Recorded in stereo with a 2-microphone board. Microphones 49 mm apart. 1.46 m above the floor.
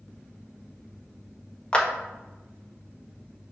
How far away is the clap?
About 1.1 m.